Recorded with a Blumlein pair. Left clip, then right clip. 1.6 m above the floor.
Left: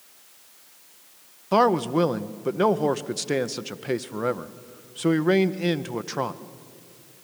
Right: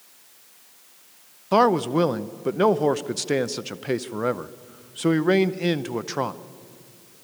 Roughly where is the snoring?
No snoring in this recording.